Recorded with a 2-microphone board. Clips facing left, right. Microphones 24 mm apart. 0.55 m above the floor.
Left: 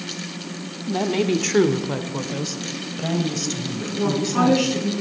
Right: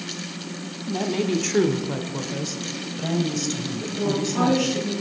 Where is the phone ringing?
No phone ringing in this recording.